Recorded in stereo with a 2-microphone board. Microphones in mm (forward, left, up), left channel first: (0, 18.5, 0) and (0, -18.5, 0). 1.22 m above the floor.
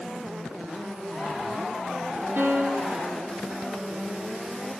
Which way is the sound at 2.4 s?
85° right.